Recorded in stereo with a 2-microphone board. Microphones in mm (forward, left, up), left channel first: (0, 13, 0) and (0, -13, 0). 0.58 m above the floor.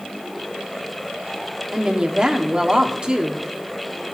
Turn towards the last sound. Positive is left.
turn(degrees=-35)  # may be behind; listen again after turning